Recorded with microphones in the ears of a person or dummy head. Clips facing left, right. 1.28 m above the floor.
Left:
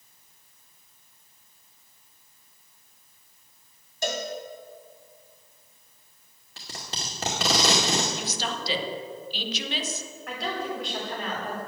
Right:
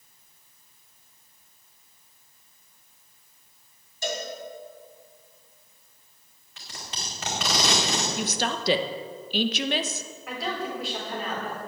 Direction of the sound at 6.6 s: 30° left (ahead or behind).